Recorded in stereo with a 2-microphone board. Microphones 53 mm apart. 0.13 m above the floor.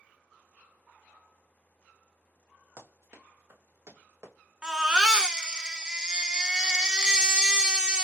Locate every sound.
2.8 s running footsteps: 55° right (ahead or behind), 1.9 m; by 4.3 s 70° right (ahead or behind), 2.5 m
4.6 s a baby crying: 15° right (ahead or behind), 0.6 m